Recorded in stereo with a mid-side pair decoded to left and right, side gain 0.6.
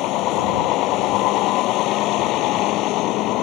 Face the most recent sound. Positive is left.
turn(degrees=65)